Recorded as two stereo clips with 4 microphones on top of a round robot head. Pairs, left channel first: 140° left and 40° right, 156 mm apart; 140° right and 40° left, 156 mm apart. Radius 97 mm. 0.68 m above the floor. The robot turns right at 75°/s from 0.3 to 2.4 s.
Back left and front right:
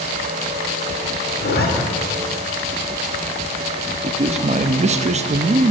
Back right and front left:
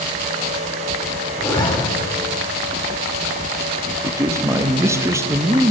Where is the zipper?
140° left, 1.9 m; by 1.7 s 160° left, 1.9 m.